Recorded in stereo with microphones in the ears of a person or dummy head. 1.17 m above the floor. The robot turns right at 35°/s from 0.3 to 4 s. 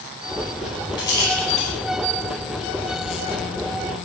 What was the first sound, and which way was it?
A rattle, 25° left (ahead or behind).